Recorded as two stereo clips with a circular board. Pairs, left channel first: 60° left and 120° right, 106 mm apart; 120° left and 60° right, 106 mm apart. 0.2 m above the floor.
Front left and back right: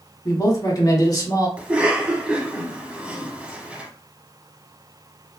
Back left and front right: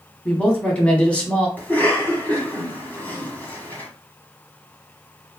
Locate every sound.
0.2 s a man speaking: 55° left, 1.1 m
1.6 s a cough: 175° left, 1.1 m